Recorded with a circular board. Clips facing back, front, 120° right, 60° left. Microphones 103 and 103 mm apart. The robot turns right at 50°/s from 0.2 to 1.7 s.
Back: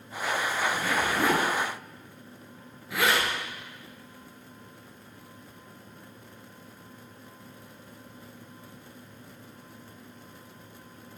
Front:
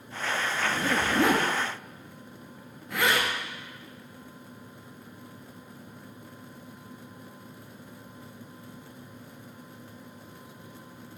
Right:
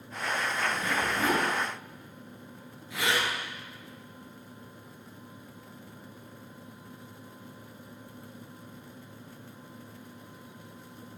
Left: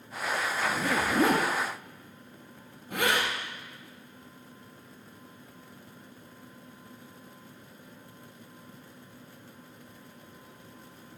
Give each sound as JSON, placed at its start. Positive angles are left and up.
{"t": 0.6, "sound": "a zipper", "azimuth_deg": 40, "distance_m": 1.7}